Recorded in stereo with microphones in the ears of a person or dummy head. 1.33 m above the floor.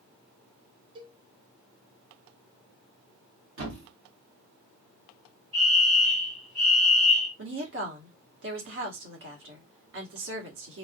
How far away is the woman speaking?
About 1.2 m.